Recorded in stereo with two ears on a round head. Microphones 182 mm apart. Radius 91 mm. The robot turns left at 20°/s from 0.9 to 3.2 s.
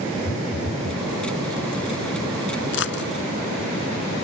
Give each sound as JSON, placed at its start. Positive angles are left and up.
{"t": 0.2, "sound": "a phone buzzing", "side_deg": 85}
{"t": 2.7, "sound": "a dropped coin", "side_deg": 65}